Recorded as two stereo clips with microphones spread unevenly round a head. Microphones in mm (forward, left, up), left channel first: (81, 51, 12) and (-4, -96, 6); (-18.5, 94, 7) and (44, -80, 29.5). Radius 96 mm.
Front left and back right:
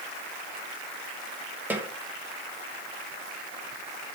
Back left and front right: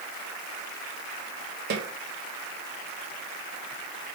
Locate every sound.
1.7 s a snare drum: 40° right, 2.0 m